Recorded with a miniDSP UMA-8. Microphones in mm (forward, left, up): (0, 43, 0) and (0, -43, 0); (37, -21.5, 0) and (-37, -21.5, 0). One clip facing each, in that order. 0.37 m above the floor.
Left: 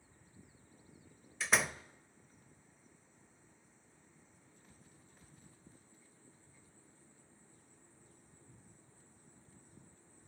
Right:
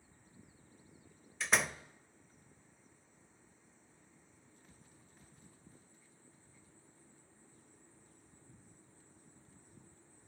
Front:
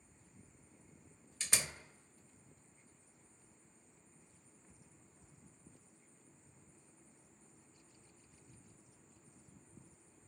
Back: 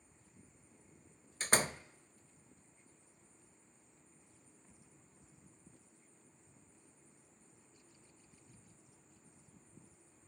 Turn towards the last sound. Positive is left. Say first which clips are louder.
# even, back 8 dB
turn(degrees=180)